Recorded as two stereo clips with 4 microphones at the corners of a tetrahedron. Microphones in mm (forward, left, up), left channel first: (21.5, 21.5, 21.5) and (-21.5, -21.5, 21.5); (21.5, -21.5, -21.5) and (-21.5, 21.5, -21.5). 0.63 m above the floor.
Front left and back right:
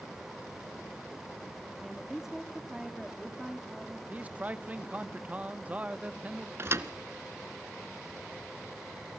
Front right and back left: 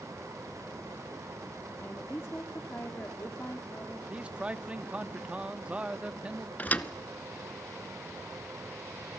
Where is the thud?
105° right, 0.9 m.